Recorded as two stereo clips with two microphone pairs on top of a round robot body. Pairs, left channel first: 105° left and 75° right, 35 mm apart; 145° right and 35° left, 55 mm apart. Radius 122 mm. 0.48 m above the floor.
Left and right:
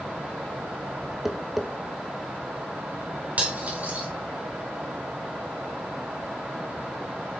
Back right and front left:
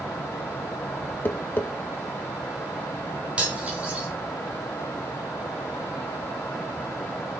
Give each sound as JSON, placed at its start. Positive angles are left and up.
{"t": 1.2, "sound": "tapping", "azimuth_deg": -140, "distance_m": 1.7}
{"t": 3.4, "sound": "cutlery clinking", "azimuth_deg": -35, "distance_m": 3.5}